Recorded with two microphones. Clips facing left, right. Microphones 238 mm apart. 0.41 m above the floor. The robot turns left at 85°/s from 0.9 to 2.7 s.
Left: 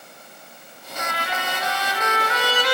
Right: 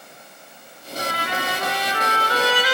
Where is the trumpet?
30° right, 1.2 m; by 2.8 s 175° right, 1.2 m.